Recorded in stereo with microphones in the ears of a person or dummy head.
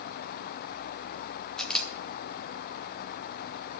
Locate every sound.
1.6 s a camera shutter: 5° left (ahead or behind), 1.5 m